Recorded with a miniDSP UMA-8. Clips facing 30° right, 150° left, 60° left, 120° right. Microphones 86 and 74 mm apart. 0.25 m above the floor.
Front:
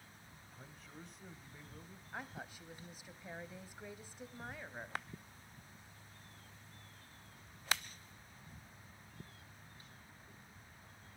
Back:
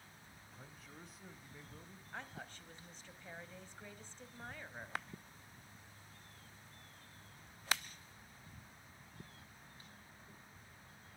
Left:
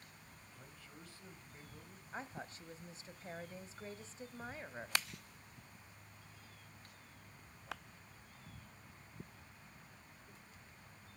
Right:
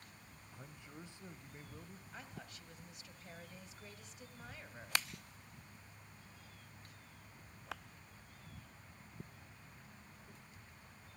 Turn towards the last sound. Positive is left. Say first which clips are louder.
# front 2 dB, left 7 dB
turn(degrees=40)